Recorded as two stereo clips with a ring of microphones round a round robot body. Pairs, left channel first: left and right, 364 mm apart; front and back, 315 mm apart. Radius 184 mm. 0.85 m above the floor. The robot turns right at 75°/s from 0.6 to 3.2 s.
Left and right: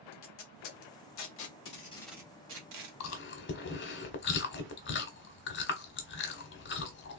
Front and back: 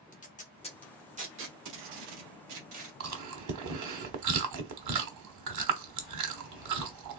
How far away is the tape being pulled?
About 1.4 m.